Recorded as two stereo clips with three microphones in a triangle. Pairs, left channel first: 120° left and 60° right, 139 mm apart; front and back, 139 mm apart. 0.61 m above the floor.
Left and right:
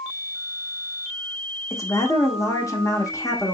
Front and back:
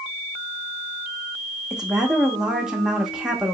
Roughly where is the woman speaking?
Left.